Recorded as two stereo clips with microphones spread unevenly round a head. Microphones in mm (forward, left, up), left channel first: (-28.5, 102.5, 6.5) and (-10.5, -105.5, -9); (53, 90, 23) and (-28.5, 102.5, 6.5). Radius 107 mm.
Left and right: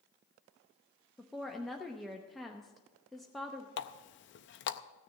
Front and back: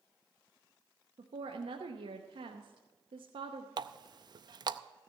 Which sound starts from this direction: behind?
A woman speaking, at 1.2 s.